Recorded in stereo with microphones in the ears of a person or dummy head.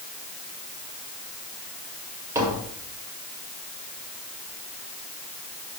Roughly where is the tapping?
Centre.